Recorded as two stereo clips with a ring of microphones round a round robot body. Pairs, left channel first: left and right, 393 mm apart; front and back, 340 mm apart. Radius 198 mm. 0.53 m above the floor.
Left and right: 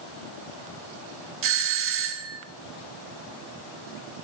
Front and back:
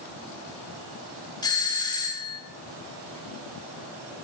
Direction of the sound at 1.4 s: 70° right.